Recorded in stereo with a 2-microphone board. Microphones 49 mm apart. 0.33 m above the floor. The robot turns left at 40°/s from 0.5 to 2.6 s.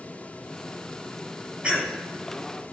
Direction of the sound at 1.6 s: 25° right (ahead or behind).